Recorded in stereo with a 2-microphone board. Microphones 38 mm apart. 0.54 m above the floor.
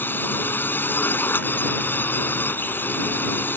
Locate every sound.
0.0 s a drone: 60° left (ahead or behind)